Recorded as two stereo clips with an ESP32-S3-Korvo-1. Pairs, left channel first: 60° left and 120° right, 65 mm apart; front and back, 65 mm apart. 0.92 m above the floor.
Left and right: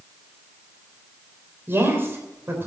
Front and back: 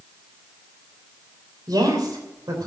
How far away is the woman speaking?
About 3 m.